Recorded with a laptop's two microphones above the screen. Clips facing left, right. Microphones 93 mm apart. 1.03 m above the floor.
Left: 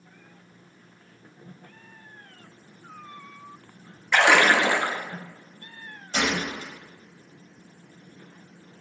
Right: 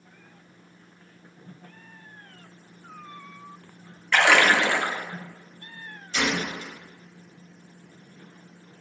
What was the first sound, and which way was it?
A splash, 10° left (ahead or behind).